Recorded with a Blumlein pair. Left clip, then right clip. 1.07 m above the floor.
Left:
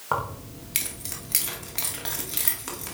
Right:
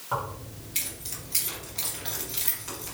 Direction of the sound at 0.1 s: 60° left.